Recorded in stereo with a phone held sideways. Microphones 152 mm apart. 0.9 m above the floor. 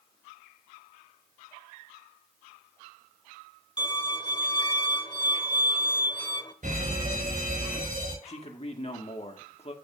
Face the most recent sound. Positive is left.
turn(degrees=45)  # may be behind; listen again after turning